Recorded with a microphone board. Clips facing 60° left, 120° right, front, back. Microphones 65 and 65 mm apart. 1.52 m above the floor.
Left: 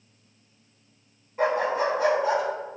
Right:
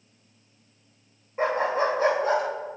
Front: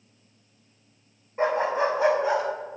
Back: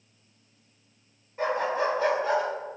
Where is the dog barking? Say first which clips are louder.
Even, front 3 dB; 65° right, 3 m; by 2.4 s 80° right, 3 m.